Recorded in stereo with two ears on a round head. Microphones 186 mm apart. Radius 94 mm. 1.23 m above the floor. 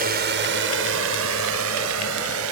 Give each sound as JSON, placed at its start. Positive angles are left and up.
{"t": 0.0, "sound": "a drone", "side_deg": -50}